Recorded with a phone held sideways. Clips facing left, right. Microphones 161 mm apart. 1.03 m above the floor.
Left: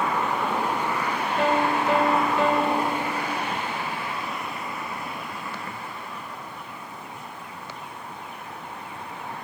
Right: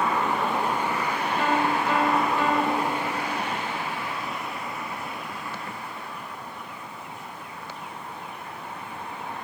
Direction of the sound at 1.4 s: 70° left (ahead or behind).